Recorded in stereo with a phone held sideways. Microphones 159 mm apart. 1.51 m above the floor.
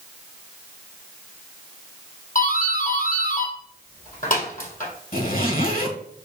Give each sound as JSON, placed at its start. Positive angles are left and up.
{"t": 2.4, "sound": "a doorbell", "side_deg": 60, "distance_m": 3.5}
{"t": 5.1, "sound": "a zipper", "side_deg": 65, "distance_m": 1.6}